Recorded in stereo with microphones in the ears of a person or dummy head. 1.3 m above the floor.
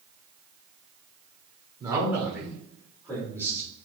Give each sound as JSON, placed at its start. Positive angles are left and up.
{"t": 1.8, "sound": "a man speaking", "side_deg": -15, "distance_m": 4.0}